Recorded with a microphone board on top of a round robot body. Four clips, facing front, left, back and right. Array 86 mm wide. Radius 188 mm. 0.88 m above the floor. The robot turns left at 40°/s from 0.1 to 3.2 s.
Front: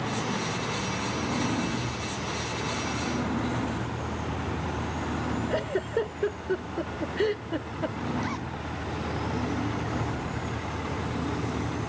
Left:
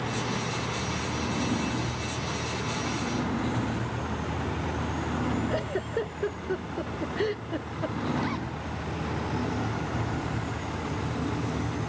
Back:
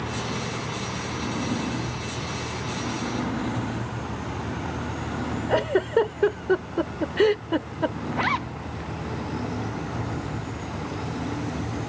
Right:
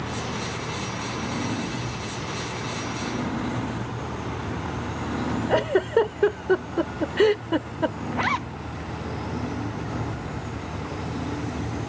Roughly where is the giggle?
Behind right.